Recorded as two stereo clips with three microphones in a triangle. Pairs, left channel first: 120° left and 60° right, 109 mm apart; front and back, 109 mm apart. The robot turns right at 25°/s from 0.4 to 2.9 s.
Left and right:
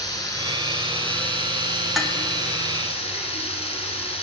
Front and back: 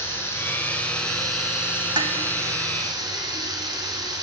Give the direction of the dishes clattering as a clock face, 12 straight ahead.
5 o'clock.